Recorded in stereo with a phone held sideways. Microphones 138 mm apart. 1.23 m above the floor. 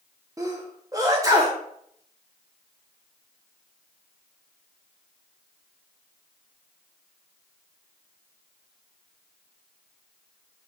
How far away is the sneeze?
About 0.6 m.